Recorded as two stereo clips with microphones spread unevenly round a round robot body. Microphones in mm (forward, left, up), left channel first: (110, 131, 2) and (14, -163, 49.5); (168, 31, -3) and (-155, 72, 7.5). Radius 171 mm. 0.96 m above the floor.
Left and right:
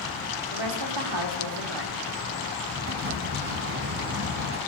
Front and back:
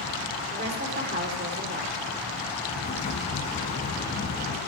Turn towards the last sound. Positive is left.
turn(degrees=-75)